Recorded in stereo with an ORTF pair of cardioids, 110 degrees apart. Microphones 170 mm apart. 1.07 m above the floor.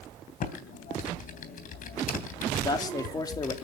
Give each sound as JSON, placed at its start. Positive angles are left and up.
{"t": 0.4, "sound": "typing on a keyboard", "azimuth_deg": 55, "distance_m": 3.0}
{"t": 2.6, "sound": "a man speaking", "azimuth_deg": 25, "distance_m": 3.0}